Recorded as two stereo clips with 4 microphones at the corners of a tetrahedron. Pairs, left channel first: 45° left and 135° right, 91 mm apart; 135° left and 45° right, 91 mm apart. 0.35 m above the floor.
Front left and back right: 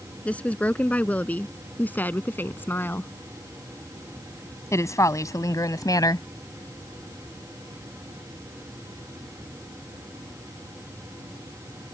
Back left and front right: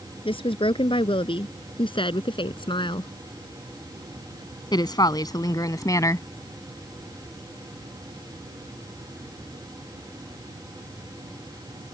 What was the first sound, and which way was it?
A woman speaking, 120° left.